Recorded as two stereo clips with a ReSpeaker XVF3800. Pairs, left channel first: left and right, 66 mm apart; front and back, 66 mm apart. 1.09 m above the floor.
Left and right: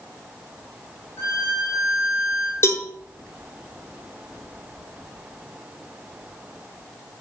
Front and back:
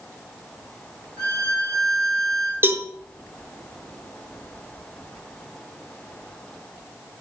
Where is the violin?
140° left, 5.5 m.